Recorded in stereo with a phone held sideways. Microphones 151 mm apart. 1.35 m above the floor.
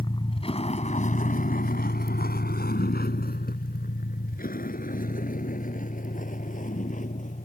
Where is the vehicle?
30° left (ahead or behind); by 7.5 s 55° left (ahead or behind).